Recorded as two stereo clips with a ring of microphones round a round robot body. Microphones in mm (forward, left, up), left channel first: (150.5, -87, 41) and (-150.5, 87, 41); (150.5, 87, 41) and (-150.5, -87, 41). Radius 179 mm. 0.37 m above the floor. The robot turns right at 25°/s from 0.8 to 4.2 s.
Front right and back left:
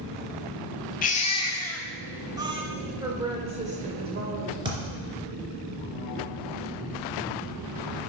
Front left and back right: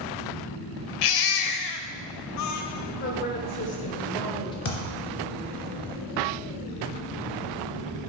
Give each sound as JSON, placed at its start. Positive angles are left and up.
{"t": 1.0, "sound": "a baby crying", "azimuth_deg": 35, "distance_m": 0.8}
{"t": 3.0, "sound": "a woman speaking", "azimuth_deg": 70, "distance_m": 1.6}
{"t": 4.7, "sound": "a thud", "azimuth_deg": 70, "distance_m": 2.5}